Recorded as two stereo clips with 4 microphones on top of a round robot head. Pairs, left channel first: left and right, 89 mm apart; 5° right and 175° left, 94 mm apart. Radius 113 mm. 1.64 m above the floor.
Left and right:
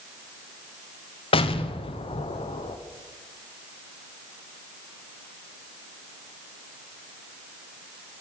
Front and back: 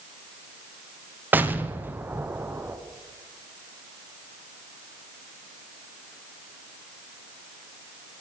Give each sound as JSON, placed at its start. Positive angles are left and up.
{"t": 1.3, "sound": "an explosion", "azimuth_deg": 105, "distance_m": 0.9}